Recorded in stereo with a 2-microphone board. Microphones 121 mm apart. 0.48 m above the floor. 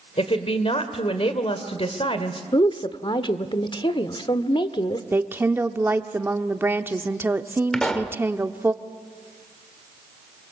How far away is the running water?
No running water in this recording.